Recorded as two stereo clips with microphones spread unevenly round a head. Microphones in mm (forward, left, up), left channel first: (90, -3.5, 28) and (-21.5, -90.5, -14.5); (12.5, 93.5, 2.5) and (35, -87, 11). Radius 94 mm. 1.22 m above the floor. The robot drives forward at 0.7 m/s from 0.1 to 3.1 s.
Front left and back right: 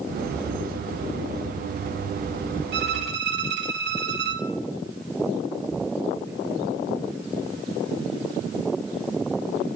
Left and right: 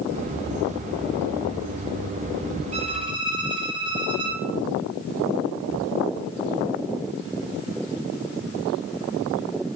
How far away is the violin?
About 0.9 m.